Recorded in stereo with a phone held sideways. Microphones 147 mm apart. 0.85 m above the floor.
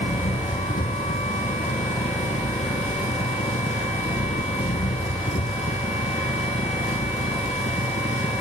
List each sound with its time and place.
0.0 s an engine running: 65° left (ahead or behind)